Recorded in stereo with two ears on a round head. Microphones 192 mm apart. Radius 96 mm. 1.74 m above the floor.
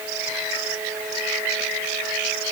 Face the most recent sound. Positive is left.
No sound to turn to.